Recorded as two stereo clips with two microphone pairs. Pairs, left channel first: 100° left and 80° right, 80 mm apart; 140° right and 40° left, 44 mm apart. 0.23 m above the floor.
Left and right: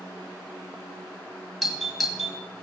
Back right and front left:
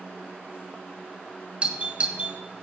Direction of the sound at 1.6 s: 10° left.